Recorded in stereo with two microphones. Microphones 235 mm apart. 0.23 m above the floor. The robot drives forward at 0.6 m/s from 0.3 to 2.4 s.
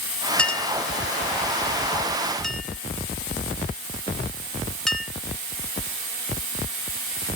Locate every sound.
0.4 s a clink: 5° left (ahead or behind), 0.6 m; by 5.1 s centre (ahead or behind), 1.5 m